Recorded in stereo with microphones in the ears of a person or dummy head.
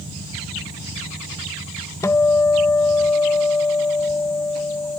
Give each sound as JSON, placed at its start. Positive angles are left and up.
{"t": 2.0, "sound": "a guitar", "side_deg": 10}